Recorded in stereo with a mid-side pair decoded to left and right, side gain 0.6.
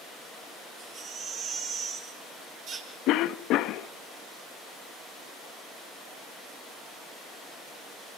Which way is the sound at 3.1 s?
65° left.